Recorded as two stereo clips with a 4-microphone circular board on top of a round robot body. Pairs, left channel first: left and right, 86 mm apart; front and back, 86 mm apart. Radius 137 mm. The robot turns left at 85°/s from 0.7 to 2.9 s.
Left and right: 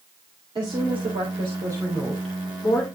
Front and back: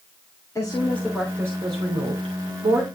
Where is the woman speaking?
55° right, 3.5 m; by 2.9 s 120° left, 3.5 m.